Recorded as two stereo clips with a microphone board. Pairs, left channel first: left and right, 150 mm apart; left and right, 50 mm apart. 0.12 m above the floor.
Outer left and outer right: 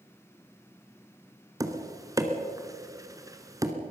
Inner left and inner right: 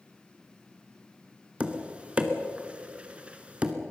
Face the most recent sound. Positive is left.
turn(degrees=-20)  # may be behind; listen again after turning